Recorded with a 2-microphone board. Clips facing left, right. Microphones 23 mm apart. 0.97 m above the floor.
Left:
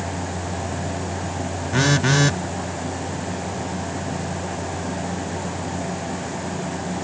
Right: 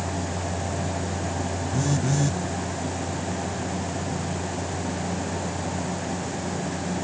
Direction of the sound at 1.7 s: 80° left.